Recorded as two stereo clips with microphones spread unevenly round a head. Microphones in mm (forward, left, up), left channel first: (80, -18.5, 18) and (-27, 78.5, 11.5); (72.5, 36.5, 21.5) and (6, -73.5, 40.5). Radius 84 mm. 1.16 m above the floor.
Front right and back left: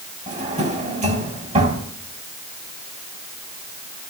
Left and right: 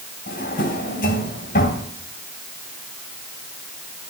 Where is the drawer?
95° left, 3 m.